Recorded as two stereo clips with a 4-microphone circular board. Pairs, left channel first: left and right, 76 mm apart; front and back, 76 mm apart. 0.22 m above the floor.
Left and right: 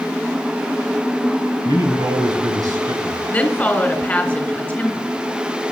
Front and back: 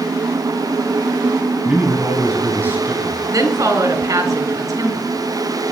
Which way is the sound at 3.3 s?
160° left.